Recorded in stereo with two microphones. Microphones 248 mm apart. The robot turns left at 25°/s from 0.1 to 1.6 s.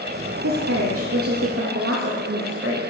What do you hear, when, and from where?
0.4 s a woman speaking: 85° right, 0.7 m; by 2.8 s 55° right (ahead or behind), 0.7 m